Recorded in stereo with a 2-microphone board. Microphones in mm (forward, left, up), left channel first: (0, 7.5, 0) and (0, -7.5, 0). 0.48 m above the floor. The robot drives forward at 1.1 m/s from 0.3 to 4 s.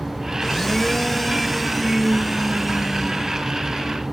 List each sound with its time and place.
0.4 s a blender: 30° left (ahead or behind), 0.8 m; by 3.5 s 5° left (ahead or behind), 4 m